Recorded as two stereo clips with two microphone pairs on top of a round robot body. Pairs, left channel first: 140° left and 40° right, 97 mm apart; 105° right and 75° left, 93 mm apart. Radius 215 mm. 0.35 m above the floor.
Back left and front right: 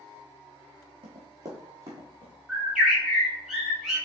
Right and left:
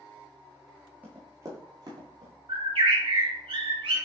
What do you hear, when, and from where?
1.0 s running footsteps: straight ahead, 0.6 m; by 2.3 s 30° left, 1.2 m
2.5 s a bird: 45° left, 1.6 m